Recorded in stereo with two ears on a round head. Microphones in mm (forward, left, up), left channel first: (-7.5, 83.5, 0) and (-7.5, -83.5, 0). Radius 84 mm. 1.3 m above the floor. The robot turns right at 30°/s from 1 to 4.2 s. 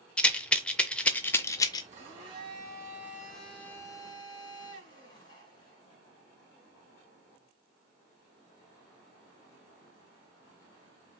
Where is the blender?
40° right, 2.5 m; by 5.8 s 25° left, 2.5 m.